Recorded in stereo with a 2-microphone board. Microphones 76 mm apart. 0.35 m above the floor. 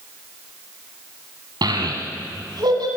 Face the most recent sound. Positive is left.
turn(degrees=-70)  # may be behind; listen again after turning